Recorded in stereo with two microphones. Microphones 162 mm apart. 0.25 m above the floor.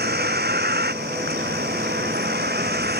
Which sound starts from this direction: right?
A vehicle, at 0.0 s.